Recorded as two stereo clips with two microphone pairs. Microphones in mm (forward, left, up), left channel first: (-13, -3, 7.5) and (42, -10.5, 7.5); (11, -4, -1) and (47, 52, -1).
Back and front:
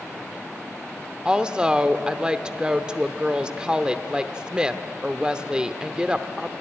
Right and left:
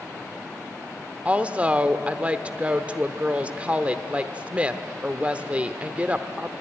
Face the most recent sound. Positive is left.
turn(degrees=40)